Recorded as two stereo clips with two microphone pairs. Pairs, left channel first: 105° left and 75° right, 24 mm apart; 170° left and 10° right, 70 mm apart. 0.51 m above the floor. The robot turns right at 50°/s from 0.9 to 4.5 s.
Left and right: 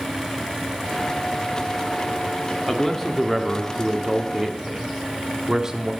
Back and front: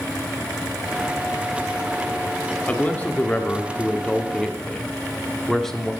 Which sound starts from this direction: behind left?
A man speaking, at 2.7 s.